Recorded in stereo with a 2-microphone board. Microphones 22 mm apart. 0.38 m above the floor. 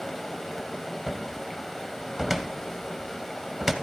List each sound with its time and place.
0.0 s running water: 15° left (ahead or behind), 1.8 m
1.1 s a cupboard door: 15° right (ahead or behind), 1.0 m